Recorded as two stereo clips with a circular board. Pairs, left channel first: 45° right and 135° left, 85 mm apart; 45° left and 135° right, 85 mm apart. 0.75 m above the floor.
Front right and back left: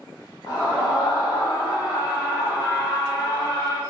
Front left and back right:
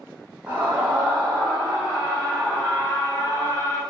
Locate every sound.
0.5 s a scream: 70° right, 3.5 m; by 3.8 s 10° right, 3 m